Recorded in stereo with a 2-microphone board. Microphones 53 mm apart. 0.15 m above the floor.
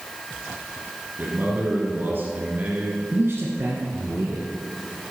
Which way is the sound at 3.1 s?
50° right (ahead or behind).